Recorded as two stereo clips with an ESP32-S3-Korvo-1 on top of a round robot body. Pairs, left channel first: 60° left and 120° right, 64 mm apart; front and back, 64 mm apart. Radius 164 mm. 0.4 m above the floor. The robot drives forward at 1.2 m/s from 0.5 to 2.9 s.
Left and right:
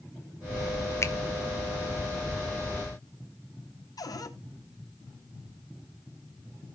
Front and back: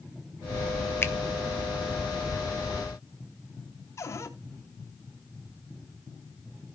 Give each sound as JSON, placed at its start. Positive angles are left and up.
{"t": 1.0, "sound": "a finger snap", "azimuth_deg": 40, "distance_m": 1.5}
{"t": 4.0, "sound": "a cupboard door", "azimuth_deg": 45, "distance_m": 2.0}